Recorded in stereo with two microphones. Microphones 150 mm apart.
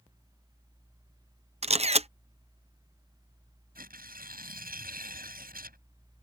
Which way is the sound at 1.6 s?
45° right (ahead or behind).